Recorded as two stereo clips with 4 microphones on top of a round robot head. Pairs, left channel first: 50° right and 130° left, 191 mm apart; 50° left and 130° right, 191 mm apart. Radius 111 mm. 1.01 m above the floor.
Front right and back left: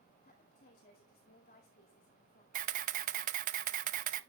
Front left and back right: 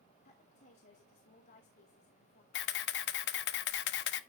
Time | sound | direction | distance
0.2 | a woman speaking | 5° left | 2 m
2.5 | a camera shutter | 80° left | 0.7 m